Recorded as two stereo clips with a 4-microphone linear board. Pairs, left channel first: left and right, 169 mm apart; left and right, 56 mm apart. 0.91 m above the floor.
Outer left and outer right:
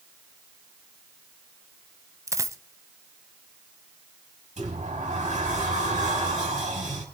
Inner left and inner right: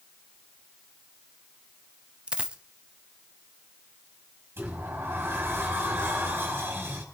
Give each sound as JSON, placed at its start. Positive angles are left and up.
{"t": 2.3, "sound": "a dropped coin", "side_deg": -20, "distance_m": 0.8}
{"t": 4.6, "sound": "a sliding door", "side_deg": -45, "distance_m": 5.0}